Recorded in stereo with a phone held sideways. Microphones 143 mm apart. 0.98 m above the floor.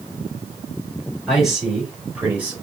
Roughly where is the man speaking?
Centre.